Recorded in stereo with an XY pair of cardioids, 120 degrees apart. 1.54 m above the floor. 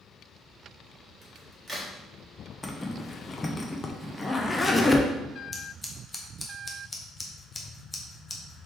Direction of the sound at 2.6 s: 15° left.